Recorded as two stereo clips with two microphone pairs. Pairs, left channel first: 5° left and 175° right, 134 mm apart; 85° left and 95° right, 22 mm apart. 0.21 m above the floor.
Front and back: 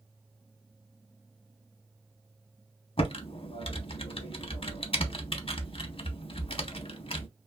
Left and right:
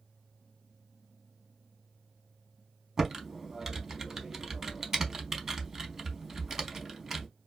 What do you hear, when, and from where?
3.0 s typing on a keyboard: 30° right, 0.5 m